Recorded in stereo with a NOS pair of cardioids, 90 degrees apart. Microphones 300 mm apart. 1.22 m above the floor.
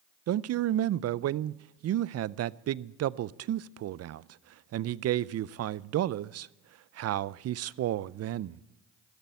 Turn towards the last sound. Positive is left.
turn(degrees=-55)